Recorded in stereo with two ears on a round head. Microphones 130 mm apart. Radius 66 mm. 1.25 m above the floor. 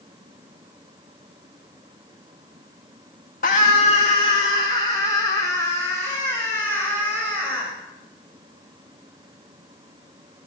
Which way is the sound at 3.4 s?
60° left (ahead or behind).